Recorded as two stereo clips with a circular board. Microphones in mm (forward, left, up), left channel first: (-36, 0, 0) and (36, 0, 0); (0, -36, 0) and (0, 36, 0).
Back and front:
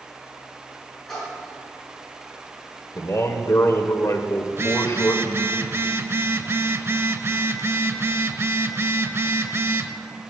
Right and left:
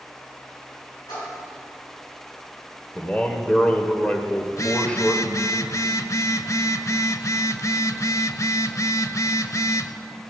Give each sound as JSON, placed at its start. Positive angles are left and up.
{"t": 1.1, "sound": "a splash", "azimuth_deg": -95, "distance_m": 6.5}
{"t": 3.0, "sound": "a man speaking", "azimuth_deg": -160, "distance_m": 1.3}
{"t": 4.5, "sound": "a phone buzzing", "azimuth_deg": -50, "distance_m": 0.6}